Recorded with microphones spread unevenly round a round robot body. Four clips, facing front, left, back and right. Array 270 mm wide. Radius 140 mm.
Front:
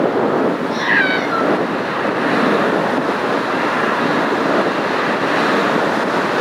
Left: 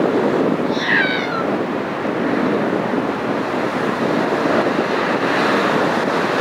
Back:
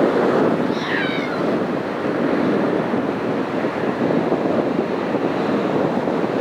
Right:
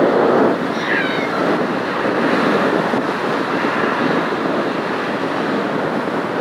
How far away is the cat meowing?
About 2.5 m.